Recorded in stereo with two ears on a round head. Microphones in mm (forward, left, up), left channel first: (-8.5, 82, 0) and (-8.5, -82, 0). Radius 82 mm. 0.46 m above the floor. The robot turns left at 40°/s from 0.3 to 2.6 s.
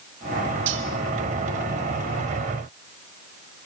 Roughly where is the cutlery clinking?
Right.